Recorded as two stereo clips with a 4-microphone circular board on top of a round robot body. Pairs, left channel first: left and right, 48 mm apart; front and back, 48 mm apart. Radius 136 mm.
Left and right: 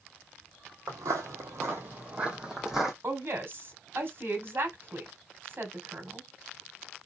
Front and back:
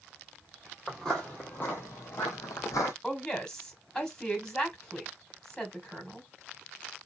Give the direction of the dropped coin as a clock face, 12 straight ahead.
No dropped coin in this recording.